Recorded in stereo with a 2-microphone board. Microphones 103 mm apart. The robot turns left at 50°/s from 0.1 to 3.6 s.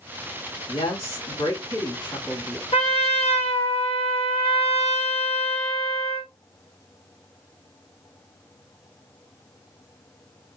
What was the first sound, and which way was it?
A woman speaking, 115° left.